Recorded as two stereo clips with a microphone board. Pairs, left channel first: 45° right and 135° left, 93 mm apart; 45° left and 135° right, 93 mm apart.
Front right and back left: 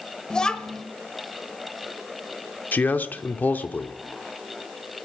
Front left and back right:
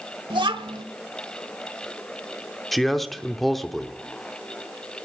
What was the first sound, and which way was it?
A child speaking, 125° right.